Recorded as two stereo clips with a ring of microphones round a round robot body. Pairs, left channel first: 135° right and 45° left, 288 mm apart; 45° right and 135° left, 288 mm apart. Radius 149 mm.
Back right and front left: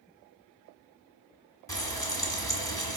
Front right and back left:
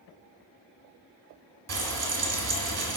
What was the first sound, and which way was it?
Frying, 150° left.